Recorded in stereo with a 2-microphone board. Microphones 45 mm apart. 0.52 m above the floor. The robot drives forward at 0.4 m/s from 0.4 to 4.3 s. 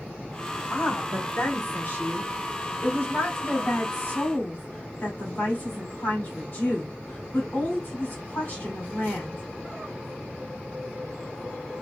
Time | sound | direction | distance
0.7 | a woman speaking | 45° left (ahead or behind) | 1.9 m